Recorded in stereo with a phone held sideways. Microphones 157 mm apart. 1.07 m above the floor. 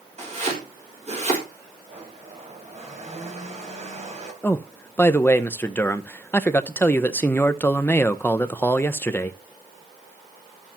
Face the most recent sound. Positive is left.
turn(degrees=15)  # may be behind; listen again after turning